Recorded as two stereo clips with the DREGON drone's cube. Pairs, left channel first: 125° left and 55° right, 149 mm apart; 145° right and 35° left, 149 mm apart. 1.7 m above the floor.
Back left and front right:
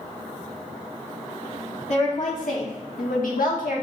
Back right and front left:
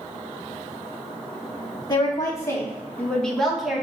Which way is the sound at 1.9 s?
155° left.